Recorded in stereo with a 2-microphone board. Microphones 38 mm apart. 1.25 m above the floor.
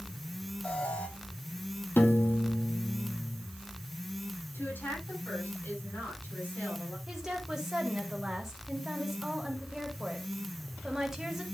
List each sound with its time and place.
0.6 s an alarm: 35° left (ahead or behind), 3.5 m
2.0 s a piano: 75° left (ahead or behind), 1.4 m
4.5 s a woman speaking: 60° left (ahead or behind), 9 m
7.1 s a woman speaking: 10° right (ahead or behind), 3 m